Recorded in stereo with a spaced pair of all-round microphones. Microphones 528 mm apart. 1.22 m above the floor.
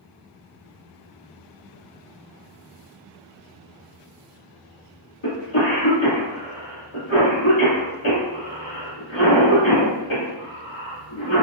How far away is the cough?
About 1.2 m.